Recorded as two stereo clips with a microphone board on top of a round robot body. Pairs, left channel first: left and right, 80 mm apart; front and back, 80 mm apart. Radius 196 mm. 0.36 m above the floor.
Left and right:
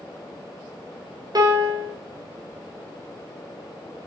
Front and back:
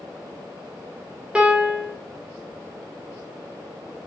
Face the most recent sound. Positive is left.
turn(degrees=-105)